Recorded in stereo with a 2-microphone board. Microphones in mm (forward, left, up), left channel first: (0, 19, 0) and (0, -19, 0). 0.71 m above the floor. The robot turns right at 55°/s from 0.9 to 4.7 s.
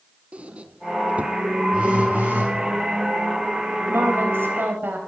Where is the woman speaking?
105° right, 3.5 m; by 5.0 s 60° right, 3.5 m.